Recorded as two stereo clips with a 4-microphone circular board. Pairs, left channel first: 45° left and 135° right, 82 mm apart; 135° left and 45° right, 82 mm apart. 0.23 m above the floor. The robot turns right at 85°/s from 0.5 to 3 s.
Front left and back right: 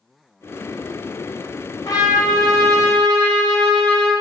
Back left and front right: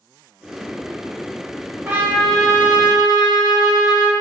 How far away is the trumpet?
About 0.7 m.